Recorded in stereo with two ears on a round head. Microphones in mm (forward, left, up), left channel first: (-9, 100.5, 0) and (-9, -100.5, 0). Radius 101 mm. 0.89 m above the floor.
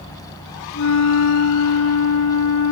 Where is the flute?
65° left (ahead or behind), 3 m.